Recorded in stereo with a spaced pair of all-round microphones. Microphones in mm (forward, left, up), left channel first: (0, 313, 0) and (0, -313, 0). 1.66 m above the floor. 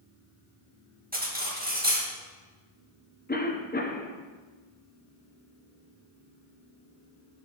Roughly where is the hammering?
No hammering in this recording.